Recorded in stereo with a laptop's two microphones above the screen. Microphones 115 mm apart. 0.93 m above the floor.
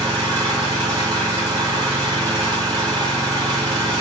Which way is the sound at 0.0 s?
45° right (ahead or behind).